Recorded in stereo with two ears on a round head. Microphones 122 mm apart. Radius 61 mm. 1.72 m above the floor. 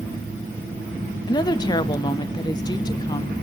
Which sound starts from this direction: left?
A woman speaking, at 1.3 s.